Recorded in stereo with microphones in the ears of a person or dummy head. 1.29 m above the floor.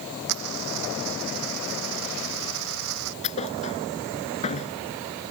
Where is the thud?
35° left (ahead or behind).